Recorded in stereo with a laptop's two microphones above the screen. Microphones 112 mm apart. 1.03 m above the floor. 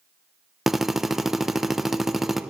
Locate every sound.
0.7 s a drill: 5° right (ahead or behind), 0.6 m